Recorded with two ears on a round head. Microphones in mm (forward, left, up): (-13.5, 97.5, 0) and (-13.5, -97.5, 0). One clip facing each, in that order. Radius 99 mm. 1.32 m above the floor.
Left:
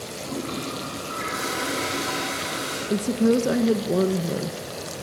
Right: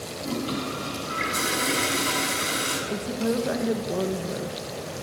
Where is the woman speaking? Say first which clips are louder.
Left 7 dB; 40° left (ahead or behind), 1.1 m.